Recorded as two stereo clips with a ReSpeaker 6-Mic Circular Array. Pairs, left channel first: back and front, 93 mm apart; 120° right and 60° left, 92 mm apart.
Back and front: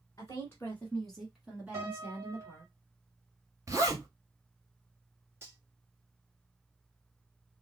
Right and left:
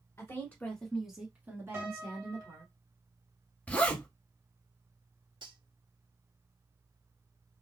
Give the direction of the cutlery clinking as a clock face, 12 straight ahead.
10 o'clock.